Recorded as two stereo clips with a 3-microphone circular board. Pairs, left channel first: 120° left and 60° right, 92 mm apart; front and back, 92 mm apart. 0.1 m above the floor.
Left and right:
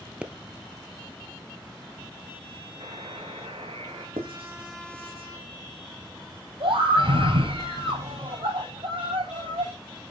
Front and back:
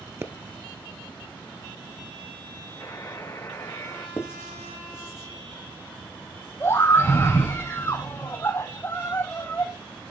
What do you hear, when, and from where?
0.2 s a pop: 130° right, 0.9 m
2.8 s a buzzer: 55° right, 5.5 m
4.2 s writing: 65° right, 2.5 m
6.6 s a scream: 65° right, 5.5 m